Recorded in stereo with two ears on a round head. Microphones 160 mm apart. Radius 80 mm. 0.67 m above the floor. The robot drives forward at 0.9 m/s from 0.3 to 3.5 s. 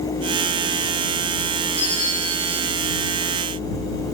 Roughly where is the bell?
Left.